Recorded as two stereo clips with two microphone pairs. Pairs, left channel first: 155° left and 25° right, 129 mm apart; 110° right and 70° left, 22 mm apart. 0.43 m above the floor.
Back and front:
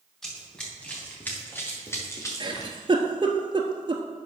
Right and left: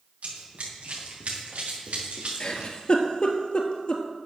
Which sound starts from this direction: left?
Running footsteps, at 0.2 s.